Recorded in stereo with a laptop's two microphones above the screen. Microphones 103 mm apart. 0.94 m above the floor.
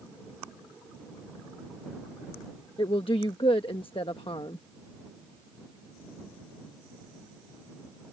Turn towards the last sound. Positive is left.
turn(degrees=55)  # may be behind; listen again after turning